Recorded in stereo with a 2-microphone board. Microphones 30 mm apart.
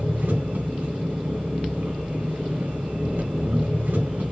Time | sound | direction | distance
0.0 | an engine running | 85° right | 2 m